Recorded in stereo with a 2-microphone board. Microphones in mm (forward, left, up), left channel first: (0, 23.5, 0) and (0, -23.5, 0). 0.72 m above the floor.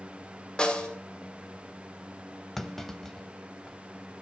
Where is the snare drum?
20° left (ahead or behind), 2.5 m.